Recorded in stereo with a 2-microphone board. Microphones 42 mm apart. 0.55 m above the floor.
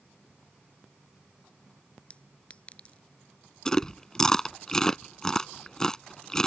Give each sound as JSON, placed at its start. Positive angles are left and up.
{"t": 2.1, "sound": "a clink", "side_deg": 30}
{"t": 3.6, "sound": "chewing", "side_deg": 10}